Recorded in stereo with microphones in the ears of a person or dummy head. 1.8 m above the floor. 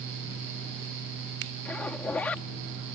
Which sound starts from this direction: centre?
A zipper, at 1.6 s.